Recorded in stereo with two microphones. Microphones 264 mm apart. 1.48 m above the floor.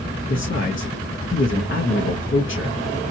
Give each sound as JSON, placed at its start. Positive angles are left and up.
{"t": 0.3, "sound": "a man speaking", "side_deg": 50, "distance_m": 0.9}